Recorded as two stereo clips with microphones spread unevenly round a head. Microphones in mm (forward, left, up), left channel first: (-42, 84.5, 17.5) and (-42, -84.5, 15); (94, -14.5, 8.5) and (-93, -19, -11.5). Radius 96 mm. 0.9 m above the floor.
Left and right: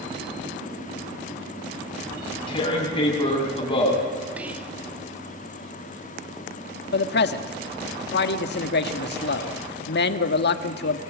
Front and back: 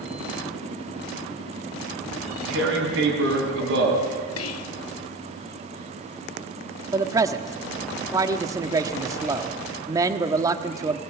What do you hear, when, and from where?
2.1 s tearing paper: 150° left, 7 m
4.4 s whispering: 10° right, 1.2 m
6.9 s a man speaking: 110° left, 1.5 m